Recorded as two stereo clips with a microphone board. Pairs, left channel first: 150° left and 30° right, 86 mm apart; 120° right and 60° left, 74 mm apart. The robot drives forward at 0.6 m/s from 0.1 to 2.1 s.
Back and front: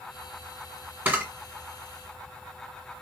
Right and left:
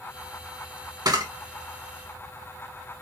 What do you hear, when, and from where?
1.1 s a camera shutter: 40° left, 1.4 m